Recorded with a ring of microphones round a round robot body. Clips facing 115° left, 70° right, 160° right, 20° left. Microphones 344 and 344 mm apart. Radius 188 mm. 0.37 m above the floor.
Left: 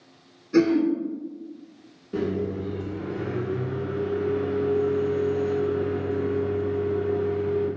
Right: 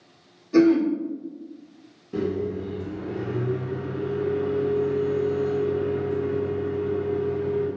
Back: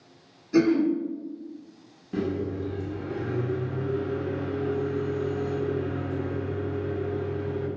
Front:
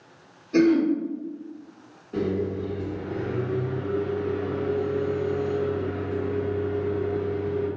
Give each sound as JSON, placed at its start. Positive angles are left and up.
{"t": 0.5, "sound": "throat clearing", "azimuth_deg": -145, "distance_m": 1.5}
{"t": 2.1, "sound": "a microwave", "azimuth_deg": -150, "distance_m": 0.9}